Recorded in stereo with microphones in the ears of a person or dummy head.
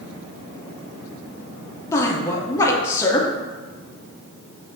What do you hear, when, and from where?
1.9 s a woman speaking: 15° left (ahead or behind), 0.8 m